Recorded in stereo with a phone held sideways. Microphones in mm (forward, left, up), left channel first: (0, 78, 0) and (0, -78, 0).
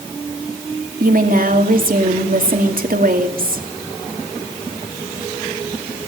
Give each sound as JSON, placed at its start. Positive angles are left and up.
{"t": 1.0, "sound": "a woman speaking", "side_deg": -65, "distance_m": 2.5}